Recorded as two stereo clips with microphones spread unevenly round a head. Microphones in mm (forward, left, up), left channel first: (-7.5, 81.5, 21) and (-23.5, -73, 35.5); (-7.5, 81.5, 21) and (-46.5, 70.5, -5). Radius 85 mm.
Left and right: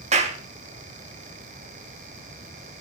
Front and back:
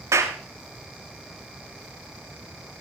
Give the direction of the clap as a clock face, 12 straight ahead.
5 o'clock.